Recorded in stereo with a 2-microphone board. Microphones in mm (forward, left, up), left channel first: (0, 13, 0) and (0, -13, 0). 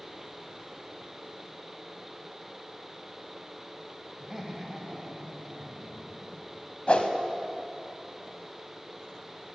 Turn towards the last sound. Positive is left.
turn(degrees=55)  # may be behind; listen again after turning